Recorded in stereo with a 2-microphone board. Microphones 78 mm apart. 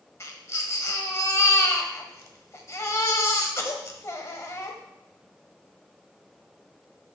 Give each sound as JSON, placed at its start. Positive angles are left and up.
{"t": 0.2, "sound": "a baby crying", "side_deg": 40, "distance_m": 1.2}